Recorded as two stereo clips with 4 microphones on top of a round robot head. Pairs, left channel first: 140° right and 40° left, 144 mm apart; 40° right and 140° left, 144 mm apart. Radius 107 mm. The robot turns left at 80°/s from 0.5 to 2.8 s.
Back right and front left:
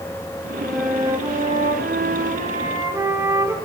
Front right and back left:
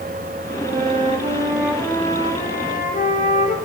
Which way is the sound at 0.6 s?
145° left.